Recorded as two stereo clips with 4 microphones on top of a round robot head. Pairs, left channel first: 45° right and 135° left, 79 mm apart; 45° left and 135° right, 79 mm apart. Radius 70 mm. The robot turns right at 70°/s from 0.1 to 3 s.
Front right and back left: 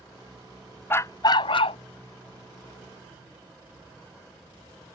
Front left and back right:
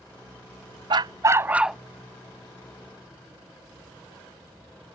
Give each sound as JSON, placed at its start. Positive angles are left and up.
{"t": 0.9, "sound": "a dog barking", "azimuth_deg": -110}